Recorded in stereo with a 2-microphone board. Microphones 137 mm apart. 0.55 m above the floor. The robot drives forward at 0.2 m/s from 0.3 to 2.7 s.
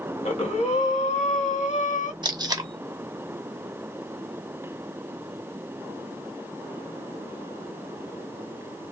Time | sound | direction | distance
0.2 | breathing | 55° left (ahead or behind) | 1.1 m
2.2 | tape being pulled | 35° right (ahead or behind) | 0.6 m